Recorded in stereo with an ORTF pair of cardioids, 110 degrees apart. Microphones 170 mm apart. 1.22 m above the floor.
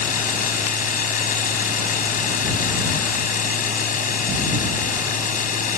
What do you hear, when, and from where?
0.0 s a machine running: 50° left